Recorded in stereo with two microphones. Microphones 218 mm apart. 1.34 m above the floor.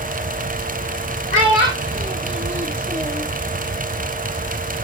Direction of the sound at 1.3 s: 60° right (ahead or behind).